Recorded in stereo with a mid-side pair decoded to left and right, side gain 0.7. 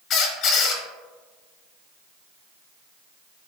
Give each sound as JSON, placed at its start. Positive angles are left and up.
{"t": 0.1, "sound": "a squeak", "azimuth_deg": 45, "distance_m": 0.9}